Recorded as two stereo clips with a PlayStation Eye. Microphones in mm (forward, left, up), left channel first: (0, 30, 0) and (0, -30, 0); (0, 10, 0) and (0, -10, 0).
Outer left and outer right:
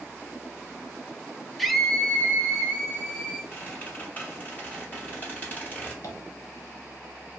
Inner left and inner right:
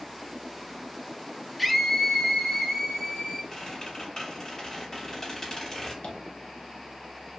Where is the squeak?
30° left (ahead or behind), 2.5 m.